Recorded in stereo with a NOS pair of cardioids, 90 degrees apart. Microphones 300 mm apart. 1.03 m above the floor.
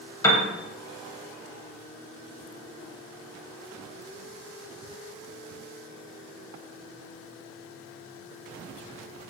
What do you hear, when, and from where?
0.2 s a piano: 10° left, 0.5 m